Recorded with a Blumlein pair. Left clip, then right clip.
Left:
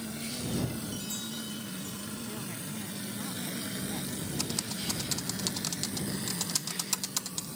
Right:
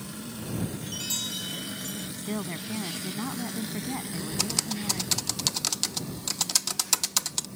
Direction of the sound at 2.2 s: 60° right.